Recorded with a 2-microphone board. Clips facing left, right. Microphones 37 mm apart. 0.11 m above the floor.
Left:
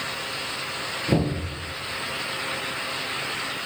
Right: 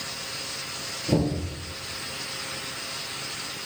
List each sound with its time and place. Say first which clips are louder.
1.1 s knocking: even; 20° left (ahead or behind), 1.1 m